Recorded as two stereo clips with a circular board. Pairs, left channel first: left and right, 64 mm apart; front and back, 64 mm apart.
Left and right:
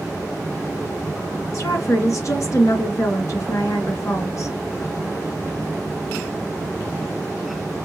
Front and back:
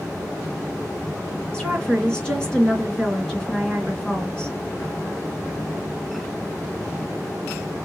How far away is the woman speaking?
About 2.5 m.